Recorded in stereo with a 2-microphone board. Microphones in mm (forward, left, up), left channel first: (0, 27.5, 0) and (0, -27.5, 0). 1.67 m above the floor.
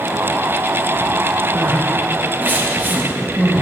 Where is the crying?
35° right (ahead or behind), 1.3 m.